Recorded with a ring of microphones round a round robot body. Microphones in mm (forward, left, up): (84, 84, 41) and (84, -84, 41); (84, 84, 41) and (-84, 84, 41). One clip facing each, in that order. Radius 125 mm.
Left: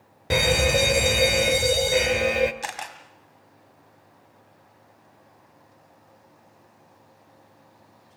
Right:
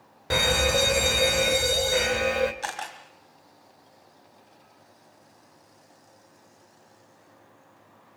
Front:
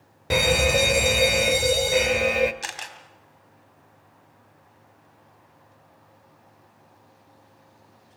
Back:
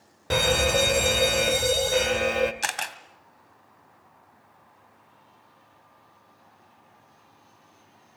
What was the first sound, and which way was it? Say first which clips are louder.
A fire alarm: left 3 dB, front 2 dB; 60° left.